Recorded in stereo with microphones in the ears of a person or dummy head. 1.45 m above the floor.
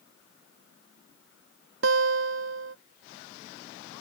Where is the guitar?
70° right (ahead or behind).